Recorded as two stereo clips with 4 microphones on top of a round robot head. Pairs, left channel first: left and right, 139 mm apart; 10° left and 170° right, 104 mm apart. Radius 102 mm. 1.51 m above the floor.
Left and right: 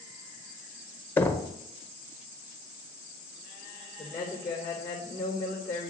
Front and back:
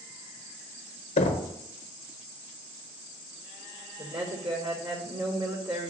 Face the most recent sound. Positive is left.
turn(degrees=170)